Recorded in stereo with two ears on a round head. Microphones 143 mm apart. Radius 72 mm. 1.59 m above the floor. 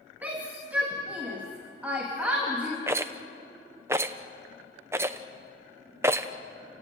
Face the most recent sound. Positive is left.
turn(degrees=-15)  # may be behind; listen again after turning